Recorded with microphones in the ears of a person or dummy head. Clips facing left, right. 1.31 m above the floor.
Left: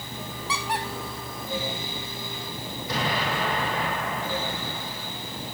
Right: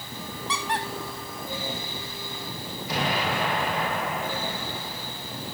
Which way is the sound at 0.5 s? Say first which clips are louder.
Even; 5° left (ahead or behind).